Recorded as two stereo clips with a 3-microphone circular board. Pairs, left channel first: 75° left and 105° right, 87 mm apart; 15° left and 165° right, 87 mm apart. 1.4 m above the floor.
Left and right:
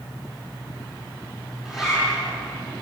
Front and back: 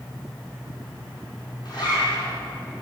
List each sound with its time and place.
1.6 s a zipper: 20° right, 6.5 m